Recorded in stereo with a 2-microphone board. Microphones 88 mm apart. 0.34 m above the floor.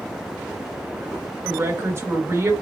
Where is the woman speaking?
30° right (ahead or behind), 1.5 m.